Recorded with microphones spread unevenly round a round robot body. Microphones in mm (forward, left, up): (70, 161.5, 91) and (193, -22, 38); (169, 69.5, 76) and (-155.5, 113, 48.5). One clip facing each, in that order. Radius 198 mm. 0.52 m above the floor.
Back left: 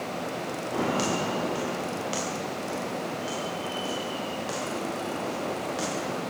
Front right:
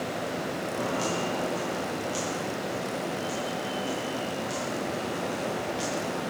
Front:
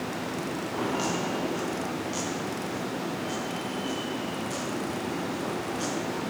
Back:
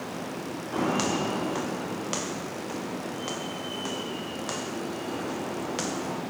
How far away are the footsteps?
About 5 m.